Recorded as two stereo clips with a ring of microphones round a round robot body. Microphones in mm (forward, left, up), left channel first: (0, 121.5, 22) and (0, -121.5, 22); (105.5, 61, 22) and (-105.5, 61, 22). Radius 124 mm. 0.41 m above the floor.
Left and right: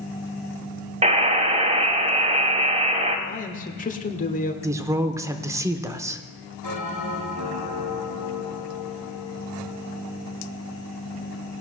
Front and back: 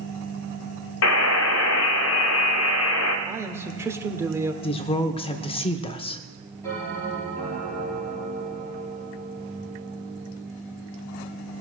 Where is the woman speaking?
25° right, 0.8 m.